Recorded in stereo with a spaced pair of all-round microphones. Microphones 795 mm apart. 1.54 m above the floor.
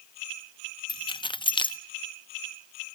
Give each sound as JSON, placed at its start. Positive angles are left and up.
{"t": 0.9, "sound": "keys jangling", "side_deg": 5, "distance_m": 0.6}